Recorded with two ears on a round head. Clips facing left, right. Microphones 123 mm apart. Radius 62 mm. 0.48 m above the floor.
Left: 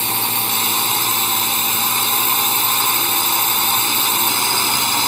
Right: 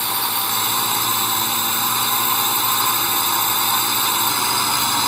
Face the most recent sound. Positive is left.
turn(degrees=20)  # may be behind; listen again after turning